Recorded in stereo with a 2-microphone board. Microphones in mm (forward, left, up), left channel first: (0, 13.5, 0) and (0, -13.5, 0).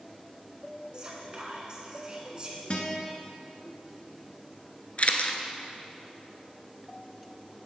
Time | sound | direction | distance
0.9 | whispering | 30° right (ahead or behind) | 1.3 m
2.7 | a guitar | 45° left (ahead or behind) | 1.0 m
5.0 | a camera shutter | 50° left (ahead or behind) | 0.6 m